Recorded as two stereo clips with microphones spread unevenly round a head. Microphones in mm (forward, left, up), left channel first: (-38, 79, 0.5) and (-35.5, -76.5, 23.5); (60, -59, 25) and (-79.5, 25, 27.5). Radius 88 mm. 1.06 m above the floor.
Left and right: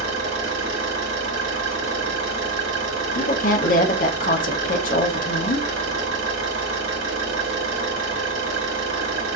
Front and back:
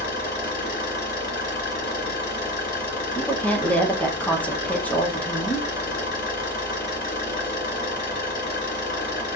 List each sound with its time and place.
0.0 s an engine running: 65° right, 2.5 m
3.1 s a woman speaking: 50° left, 0.7 m